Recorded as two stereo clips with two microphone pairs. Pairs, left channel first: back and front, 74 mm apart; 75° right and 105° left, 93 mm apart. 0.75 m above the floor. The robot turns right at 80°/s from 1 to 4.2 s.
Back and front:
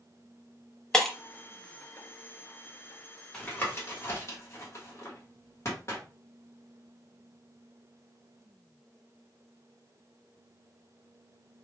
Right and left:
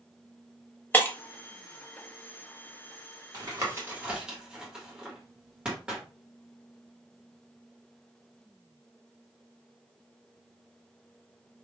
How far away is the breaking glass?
About 0.5 m.